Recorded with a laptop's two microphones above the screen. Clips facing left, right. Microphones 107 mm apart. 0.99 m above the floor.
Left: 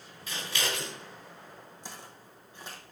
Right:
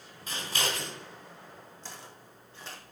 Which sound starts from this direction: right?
Scissors, at 0.3 s.